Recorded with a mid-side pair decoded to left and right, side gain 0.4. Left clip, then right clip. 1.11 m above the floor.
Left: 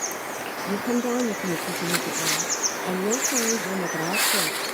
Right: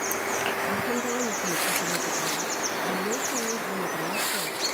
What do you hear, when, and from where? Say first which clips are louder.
0.7 s a woman speaking: left 1 dB; 55° left, 1.1 m